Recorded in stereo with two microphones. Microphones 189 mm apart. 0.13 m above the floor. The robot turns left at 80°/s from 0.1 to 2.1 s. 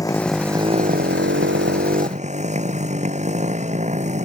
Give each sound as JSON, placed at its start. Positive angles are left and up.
{"t": 0.0, "sound": "a motorcycle", "azimuth_deg": 20}